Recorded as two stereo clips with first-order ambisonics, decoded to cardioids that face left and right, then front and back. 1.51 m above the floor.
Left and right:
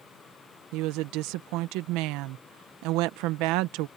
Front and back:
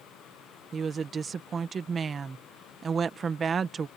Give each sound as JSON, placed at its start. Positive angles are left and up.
{"t": 0.7, "sound": "a woman speaking", "azimuth_deg": -110}